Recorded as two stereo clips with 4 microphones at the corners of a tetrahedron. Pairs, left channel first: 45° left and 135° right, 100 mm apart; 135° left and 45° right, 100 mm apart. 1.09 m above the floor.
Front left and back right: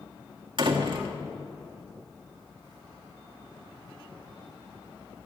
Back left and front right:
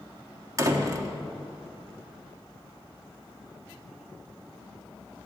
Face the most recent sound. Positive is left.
turn(degrees=-100)